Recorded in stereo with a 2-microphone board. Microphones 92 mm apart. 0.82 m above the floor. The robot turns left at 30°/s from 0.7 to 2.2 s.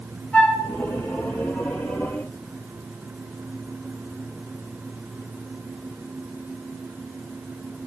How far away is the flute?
About 5.5 m.